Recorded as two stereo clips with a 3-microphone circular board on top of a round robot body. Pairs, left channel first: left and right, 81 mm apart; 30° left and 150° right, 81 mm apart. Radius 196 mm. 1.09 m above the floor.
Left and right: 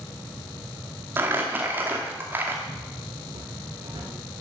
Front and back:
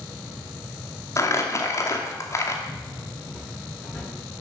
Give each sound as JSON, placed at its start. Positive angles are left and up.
{"t": 1.2, "sound": "crumpling", "azimuth_deg": -20, "distance_m": 2.0}
{"t": 2.7, "sound": "footsteps", "azimuth_deg": -40, "distance_m": 4.5}